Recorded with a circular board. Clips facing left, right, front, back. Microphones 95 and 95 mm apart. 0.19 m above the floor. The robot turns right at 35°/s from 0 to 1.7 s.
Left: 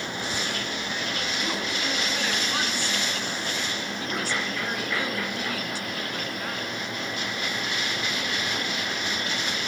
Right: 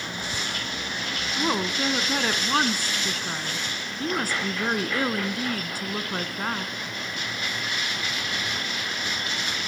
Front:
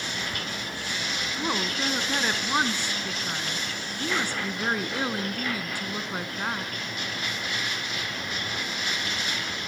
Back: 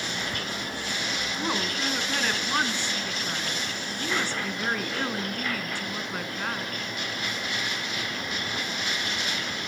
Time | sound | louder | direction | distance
1.4 | a woman speaking | right 9 dB, front 1 dB | 85° right | 1.6 m